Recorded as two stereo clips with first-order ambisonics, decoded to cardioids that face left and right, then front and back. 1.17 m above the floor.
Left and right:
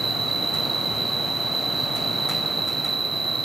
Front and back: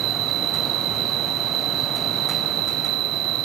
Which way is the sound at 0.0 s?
165° right.